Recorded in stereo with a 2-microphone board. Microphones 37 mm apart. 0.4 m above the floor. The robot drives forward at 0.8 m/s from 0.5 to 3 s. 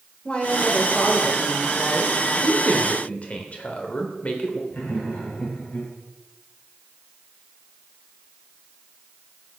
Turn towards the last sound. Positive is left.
turn(degrees=65)  # may be behind; listen again after turning